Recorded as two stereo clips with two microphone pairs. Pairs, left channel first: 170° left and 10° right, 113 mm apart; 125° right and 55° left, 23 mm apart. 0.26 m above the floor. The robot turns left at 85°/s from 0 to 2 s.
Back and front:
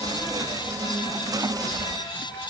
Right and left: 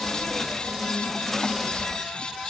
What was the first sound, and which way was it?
Only background noise.